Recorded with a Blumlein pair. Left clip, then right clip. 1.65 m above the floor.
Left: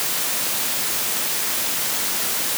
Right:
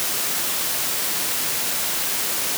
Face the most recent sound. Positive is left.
No sound to turn to.